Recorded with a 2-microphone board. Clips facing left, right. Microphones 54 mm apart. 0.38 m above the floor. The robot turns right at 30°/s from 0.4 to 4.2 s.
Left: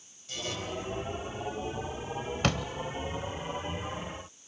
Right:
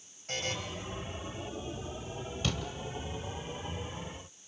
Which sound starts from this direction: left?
A door slam, at 2.4 s.